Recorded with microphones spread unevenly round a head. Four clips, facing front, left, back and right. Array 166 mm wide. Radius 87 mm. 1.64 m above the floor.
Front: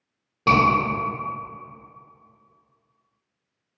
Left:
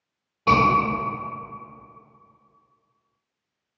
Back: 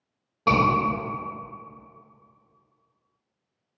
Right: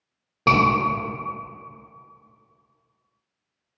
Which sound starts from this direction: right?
A scream, at 0.5 s.